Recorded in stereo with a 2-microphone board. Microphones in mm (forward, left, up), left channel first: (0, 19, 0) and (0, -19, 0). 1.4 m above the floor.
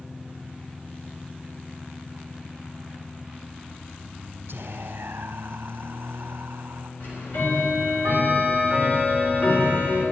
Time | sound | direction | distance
4.5 | whispering | 65° right (ahead or behind) | 0.6 m
7.0 | ticking | 55° left (ahead or behind) | 3.5 m